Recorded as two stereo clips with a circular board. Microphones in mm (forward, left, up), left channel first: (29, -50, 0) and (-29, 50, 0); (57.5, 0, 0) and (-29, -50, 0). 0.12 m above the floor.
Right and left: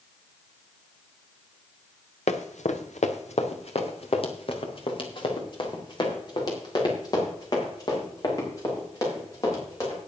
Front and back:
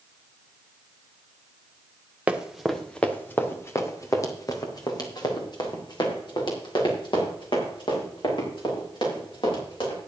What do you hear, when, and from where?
2.3 s running footsteps: 70° right, 1.6 m; by 10.0 s straight ahead, 8 m